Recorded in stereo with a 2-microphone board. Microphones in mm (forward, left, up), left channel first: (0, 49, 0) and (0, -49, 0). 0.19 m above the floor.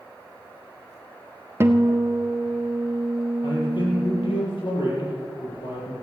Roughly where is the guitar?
Right.